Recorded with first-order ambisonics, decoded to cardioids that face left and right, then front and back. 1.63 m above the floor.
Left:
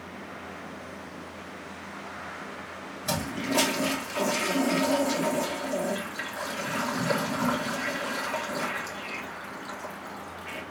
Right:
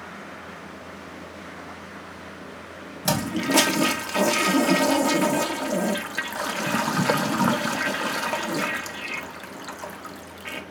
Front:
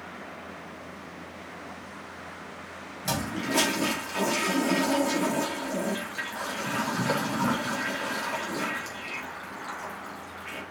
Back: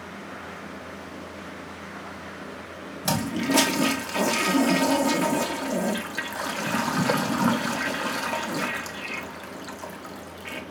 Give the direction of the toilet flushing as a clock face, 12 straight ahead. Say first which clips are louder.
Right 6 dB, back 4 dB; 4 o'clock.